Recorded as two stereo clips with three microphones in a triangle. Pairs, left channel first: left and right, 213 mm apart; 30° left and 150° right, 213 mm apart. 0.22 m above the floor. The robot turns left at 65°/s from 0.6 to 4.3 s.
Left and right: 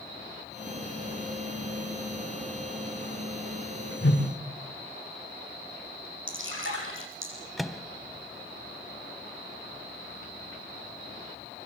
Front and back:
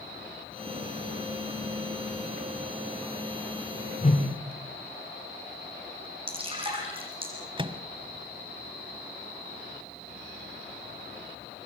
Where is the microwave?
Straight behind, 0.9 m.